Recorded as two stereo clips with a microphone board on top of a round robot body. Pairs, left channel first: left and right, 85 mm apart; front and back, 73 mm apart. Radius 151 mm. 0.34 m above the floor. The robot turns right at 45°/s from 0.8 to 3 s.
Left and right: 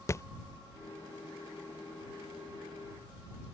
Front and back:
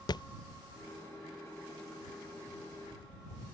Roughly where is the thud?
Ahead left.